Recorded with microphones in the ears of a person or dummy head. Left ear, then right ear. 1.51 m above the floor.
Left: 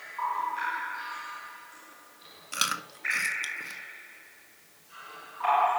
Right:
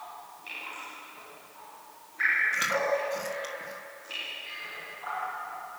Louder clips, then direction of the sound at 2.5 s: Right 4 dB; 70° left (ahead or behind).